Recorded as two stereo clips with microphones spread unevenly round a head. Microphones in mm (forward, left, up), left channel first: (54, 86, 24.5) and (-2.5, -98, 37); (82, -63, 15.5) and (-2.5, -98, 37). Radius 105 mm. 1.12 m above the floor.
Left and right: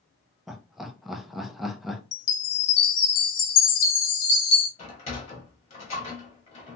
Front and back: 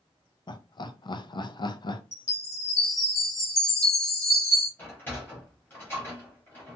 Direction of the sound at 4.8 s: 105° left.